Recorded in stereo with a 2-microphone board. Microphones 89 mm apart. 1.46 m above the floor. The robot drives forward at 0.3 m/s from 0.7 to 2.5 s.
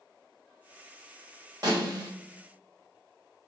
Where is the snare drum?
45° right (ahead or behind), 1.7 m.